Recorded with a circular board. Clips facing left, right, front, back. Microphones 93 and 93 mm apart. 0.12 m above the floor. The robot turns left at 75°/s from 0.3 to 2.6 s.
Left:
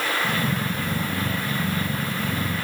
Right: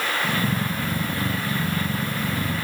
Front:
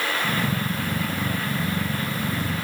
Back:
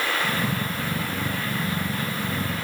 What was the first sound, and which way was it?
Only background noise.